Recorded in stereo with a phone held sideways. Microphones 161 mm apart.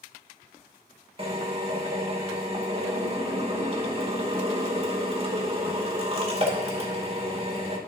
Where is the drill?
35° right (ahead or behind), 2.5 m.